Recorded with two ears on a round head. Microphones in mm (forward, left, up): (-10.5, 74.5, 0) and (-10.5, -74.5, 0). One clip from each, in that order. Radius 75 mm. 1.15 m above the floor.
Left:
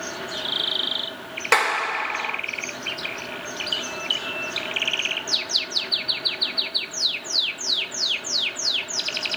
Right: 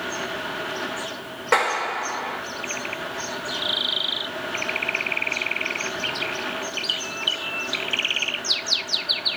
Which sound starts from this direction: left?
A clap, at 1.5 s.